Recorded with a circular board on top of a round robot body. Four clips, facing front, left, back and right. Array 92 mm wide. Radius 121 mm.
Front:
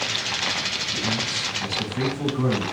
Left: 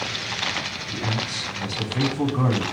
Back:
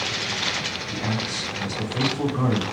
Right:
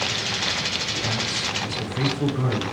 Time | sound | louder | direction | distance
0.9 | a man speaking | left 2 dB, back 1 dB | 120° left | 8 m